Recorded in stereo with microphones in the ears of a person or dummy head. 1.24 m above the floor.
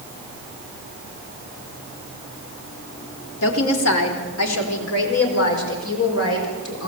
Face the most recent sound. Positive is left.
turn(degrees=70)  # may be behind; listen again after turning